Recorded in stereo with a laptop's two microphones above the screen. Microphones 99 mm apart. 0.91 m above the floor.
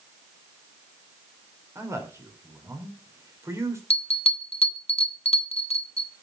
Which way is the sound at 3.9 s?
85° left.